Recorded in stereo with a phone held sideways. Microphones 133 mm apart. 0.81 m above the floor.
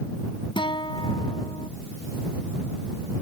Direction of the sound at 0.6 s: 40° left (ahead or behind).